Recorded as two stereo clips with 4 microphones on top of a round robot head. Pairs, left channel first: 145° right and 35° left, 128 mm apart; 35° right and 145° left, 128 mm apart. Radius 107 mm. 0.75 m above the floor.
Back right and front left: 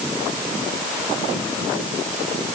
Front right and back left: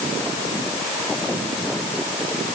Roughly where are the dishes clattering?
I don't hear dishes clattering.